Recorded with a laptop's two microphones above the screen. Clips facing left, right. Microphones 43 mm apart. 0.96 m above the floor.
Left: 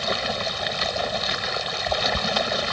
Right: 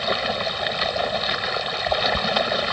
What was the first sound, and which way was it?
Running water, 10° right (ahead or behind).